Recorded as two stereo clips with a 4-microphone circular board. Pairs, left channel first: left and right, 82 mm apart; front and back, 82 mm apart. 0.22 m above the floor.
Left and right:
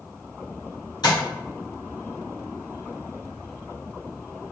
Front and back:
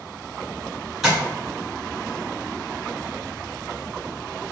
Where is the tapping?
95° left, 2.0 m.